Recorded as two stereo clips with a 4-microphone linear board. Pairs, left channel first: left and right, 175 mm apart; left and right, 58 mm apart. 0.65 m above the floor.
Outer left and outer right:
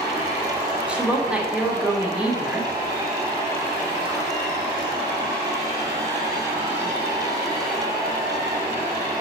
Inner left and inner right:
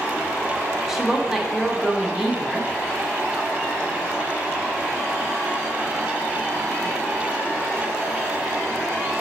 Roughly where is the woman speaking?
Centre.